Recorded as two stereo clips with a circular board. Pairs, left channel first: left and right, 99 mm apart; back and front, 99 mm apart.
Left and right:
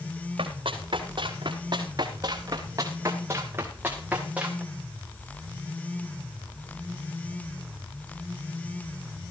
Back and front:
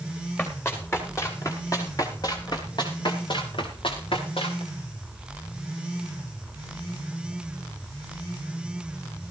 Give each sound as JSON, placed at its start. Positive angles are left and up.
{"t": 0.4, "sound": "running footsteps", "azimuth_deg": -110, "distance_m": 4.5}